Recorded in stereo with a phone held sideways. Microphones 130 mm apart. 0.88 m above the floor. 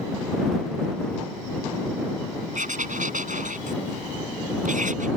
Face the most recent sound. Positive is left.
turn(degrees=-70)  # may be behind; listen again after turning